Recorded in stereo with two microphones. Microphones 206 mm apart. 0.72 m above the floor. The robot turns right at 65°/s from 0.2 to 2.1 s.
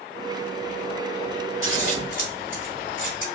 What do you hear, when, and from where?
1.6 s scissors: 65° left (ahead or behind), 1.9 m